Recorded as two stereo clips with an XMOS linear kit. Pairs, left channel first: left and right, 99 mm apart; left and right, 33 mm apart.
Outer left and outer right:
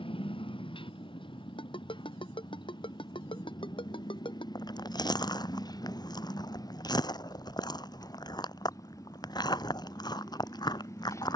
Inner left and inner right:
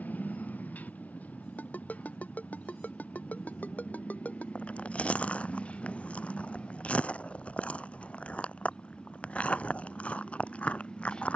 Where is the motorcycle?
60° left (ahead or behind); by 11.4 s 30° left (ahead or behind).